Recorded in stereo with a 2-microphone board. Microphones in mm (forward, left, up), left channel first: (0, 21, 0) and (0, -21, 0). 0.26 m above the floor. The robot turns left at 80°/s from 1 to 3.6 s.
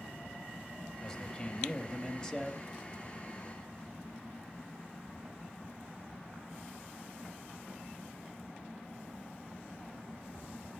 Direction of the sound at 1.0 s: 10° left (ahead or behind).